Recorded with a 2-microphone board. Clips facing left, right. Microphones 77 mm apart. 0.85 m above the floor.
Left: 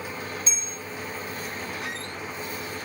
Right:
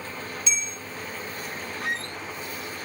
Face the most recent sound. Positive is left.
turn(degrees=-45)  # may be behind; listen again after turning